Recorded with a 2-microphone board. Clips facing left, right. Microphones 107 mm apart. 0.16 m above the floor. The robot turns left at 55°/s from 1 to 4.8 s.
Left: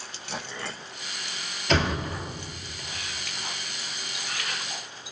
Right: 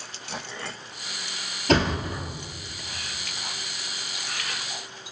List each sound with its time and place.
1.7 s a thud: 45° right (ahead or behind), 1.3 m; by 2.2 s 15° right (ahead or behind), 1.3 m